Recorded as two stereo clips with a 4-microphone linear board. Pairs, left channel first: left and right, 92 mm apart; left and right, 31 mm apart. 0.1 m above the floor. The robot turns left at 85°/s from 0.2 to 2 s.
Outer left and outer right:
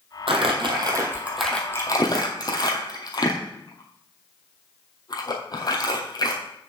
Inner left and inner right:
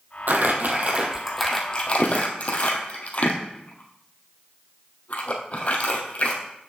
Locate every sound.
0.3 s crumpling: 70° right (ahead or behind), 1.5 m; by 6.4 s 45° left (ahead or behind), 1.5 m